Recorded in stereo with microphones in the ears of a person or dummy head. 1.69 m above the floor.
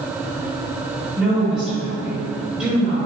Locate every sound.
1.2 s a woman speaking: 5° right (ahead or behind), 1.7 m